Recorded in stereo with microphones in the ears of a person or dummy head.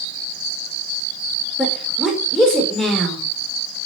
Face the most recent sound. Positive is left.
turn(degrees=0)  # may be behind; listen again after turning